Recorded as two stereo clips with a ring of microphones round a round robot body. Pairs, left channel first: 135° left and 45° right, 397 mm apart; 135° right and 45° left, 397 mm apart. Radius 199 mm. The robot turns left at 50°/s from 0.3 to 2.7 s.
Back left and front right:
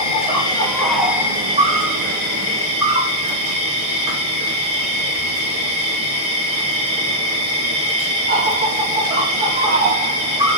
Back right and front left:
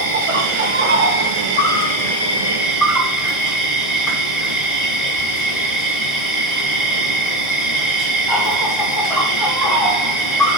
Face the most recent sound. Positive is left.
turn(degrees=-45)